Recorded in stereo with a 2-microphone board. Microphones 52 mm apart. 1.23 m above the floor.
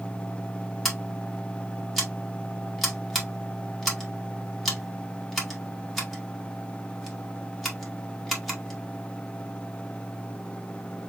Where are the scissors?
Centre (ahead or behind), 2 m.